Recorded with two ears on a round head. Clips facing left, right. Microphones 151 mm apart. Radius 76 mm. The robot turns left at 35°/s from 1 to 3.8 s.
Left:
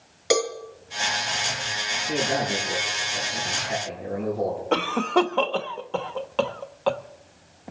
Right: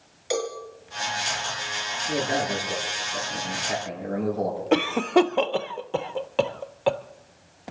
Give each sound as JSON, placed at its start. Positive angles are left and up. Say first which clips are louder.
{"t": 0.3, "sound": "a cowbell", "louder": "left 5 dB", "side_deg": 70, "distance_m": 3.5}
{"t": 2.1, "sound": "a man speaking", "louder": "even", "azimuth_deg": -15, "distance_m": 7.5}
{"t": 4.7, "sound": "a cough", "louder": "right 4 dB", "side_deg": -15, "distance_m": 0.8}